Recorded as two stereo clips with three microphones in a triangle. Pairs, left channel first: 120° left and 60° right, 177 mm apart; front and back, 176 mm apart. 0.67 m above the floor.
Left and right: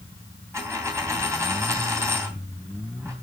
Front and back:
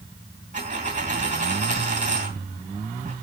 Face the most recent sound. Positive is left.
turn(degrees=-135)